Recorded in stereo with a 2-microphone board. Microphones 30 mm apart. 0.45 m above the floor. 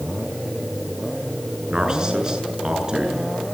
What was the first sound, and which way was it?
A man speaking, 20° right (ahead or behind).